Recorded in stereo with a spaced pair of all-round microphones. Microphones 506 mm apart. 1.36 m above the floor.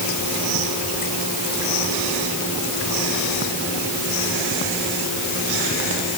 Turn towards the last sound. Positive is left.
No sound to turn to.